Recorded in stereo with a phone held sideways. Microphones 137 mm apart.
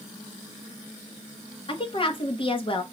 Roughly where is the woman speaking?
Left.